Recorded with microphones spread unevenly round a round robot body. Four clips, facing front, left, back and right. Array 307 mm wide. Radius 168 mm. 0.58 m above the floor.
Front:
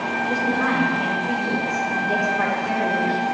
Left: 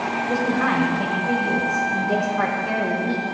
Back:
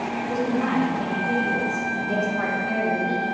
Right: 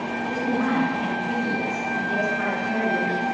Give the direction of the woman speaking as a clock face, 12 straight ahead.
9 o'clock.